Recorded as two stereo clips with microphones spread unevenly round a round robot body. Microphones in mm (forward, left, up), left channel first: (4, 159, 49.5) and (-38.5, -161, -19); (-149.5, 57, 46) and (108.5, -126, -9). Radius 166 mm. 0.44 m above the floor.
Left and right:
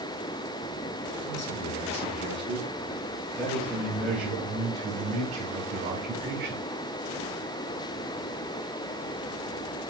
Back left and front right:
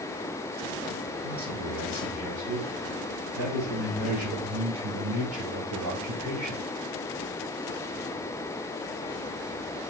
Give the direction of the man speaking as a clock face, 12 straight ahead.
12 o'clock.